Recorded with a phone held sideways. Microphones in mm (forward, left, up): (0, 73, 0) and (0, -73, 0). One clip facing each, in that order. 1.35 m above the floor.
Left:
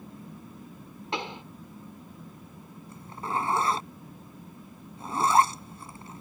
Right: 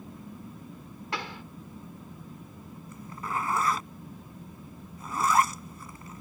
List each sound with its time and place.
1.1 s a pop: 20° left (ahead or behind)
2.9 s a zipper: 30° left (ahead or behind)